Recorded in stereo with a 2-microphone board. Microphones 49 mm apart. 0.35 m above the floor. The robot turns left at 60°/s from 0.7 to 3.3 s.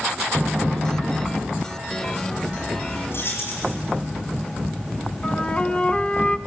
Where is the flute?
25° left (ahead or behind), 1.1 m.